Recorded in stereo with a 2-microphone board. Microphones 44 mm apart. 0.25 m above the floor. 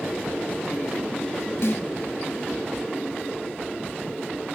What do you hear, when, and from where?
1.6 s a snare drum: 55° left (ahead or behind), 2 m